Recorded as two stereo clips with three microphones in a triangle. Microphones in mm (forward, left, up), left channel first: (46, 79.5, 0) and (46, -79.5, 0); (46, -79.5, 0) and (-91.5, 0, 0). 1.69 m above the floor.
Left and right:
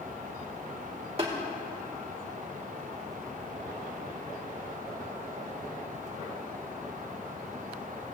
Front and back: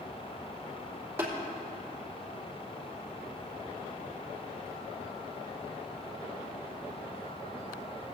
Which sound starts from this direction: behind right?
Tapping, at 1.2 s.